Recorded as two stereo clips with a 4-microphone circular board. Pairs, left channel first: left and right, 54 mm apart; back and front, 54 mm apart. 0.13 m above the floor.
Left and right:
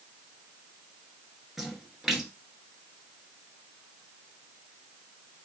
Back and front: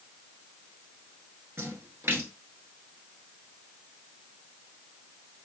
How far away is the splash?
About 1.1 m.